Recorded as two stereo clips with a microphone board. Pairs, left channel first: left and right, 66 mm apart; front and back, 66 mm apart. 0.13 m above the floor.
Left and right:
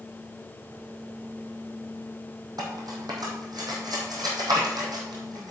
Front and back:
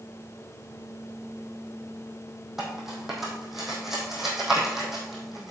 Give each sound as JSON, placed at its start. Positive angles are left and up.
{"t": 2.6, "sound": "cutlery clinking", "azimuth_deg": -95, "distance_m": 3.0}